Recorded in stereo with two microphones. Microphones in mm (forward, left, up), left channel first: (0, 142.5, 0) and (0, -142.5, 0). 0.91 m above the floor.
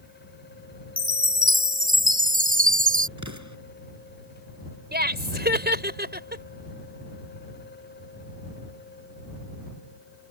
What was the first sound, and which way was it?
A chime, 30° right (ahead or behind).